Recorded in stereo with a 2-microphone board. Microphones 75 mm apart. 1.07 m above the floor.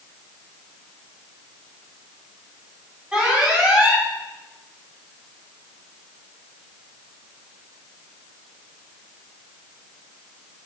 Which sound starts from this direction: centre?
An alarm, at 3.1 s.